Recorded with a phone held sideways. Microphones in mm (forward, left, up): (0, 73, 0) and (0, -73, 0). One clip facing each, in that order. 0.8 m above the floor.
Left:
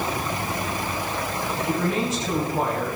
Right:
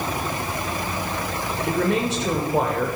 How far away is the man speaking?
About 3.5 m.